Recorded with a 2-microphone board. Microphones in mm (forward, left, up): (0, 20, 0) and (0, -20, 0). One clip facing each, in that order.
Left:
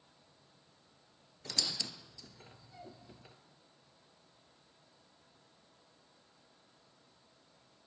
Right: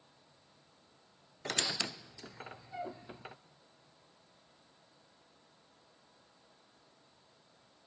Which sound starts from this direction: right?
A squeak, at 1.4 s.